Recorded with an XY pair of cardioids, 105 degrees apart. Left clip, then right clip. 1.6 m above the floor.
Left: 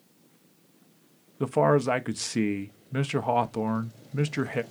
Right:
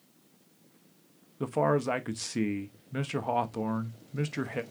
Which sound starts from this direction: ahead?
A man speaking, at 1.4 s.